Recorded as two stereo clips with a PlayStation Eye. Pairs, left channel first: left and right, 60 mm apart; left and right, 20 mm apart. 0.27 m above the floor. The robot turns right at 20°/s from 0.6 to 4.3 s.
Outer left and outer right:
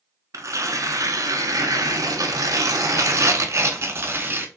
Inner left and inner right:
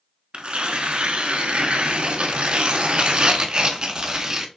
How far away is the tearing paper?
About 0.7 m.